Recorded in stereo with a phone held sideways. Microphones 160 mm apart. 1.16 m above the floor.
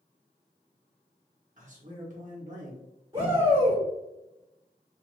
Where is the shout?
35° right (ahead or behind), 1.1 m.